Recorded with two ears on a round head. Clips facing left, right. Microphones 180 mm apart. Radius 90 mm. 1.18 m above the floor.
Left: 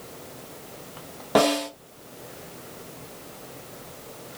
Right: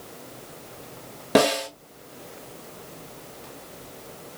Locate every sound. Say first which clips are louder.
1.4 s a snare drum: right 1 dB; 30° right (ahead or behind), 1.4 m